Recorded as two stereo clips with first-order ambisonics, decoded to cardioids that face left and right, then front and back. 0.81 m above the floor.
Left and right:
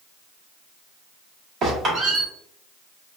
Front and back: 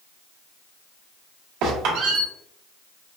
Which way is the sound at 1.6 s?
150° right.